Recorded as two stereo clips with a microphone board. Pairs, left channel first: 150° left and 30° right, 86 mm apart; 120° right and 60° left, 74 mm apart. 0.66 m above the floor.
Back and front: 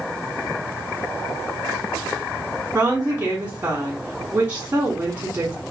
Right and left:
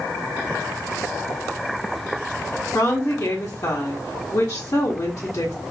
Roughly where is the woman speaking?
Right.